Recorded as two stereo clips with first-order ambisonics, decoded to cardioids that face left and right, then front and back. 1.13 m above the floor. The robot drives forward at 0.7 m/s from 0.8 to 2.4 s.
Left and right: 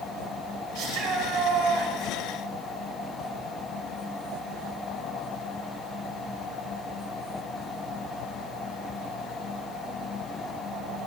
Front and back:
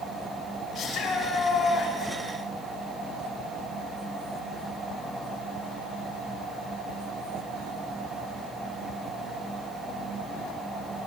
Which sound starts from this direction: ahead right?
A shout, at 0.8 s.